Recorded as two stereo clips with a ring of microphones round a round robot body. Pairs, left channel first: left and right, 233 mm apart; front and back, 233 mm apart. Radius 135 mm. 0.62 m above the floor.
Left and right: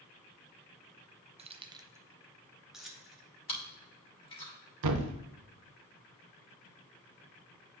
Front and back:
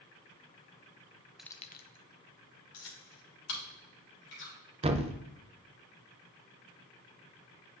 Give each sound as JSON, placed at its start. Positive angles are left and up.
{"t": 1.4, "sound": "keys jangling", "azimuth_deg": -95, "distance_m": 0.6}
{"t": 3.5, "sound": "chewing", "azimuth_deg": 25, "distance_m": 3.5}
{"t": 4.8, "sound": "a thud", "azimuth_deg": -115, "distance_m": 0.6}